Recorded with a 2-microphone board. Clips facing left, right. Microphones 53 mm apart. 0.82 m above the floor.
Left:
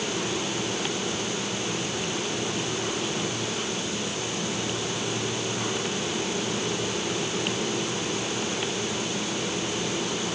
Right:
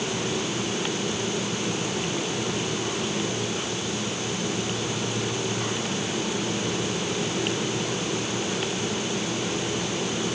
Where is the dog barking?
I don't hear a dog barking.